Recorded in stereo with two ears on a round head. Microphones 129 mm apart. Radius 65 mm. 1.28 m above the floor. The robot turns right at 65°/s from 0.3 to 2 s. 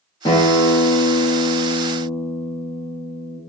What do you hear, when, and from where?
0.2 s a guitar: 35° left, 0.9 m; by 3.4 s 145° left, 0.9 m